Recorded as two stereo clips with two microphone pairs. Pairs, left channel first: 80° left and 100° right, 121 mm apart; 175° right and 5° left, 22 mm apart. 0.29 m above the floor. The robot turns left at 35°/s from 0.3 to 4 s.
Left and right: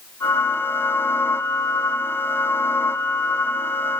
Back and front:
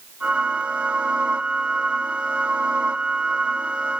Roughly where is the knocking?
No knocking in this recording.